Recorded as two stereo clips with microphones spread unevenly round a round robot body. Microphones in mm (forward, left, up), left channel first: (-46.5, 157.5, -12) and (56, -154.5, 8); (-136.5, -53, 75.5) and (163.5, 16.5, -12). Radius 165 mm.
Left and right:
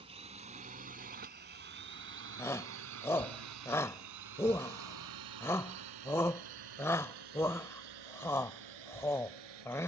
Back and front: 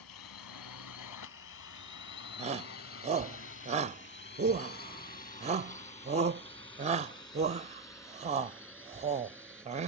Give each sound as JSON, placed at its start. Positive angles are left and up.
{"t": 0.0, "sound": "a drone", "azimuth_deg": -145}
{"t": 2.4, "sound": "a shout", "azimuth_deg": 35}